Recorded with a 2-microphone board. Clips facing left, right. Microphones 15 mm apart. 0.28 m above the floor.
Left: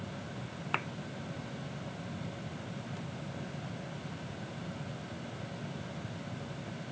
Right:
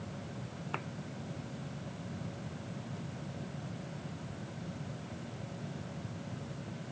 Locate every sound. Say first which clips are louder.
0.7 s a thud: left 6 dB; 50° left (ahead or behind)